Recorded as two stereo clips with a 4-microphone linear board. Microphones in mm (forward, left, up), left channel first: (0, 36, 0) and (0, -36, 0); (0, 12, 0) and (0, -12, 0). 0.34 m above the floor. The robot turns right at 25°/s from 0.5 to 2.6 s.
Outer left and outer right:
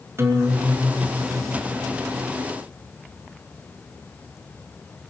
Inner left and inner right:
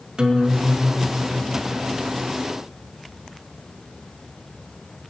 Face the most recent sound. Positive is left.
turn(degrees=-75)